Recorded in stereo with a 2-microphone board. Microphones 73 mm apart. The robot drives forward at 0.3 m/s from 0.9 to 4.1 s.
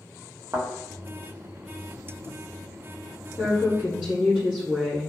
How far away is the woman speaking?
About 1.1 m.